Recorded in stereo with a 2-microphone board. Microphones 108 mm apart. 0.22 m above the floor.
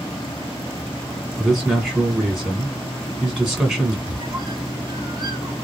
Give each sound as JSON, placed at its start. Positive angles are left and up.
{"t": 1.4, "sound": "a man speaking", "side_deg": 0, "distance_m": 2.0}
{"t": 4.1, "sound": "a squeak", "side_deg": -45, "distance_m": 0.7}